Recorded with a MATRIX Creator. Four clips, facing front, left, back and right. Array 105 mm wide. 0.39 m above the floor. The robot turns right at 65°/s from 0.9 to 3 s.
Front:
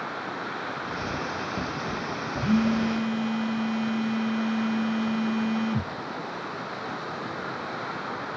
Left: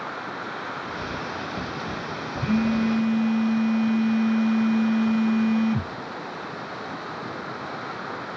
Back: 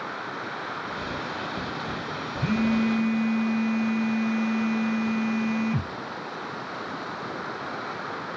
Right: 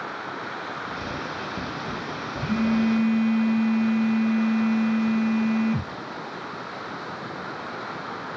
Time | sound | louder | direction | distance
2.4 | a phone buzzing | even, even | 175° left | 1.3 m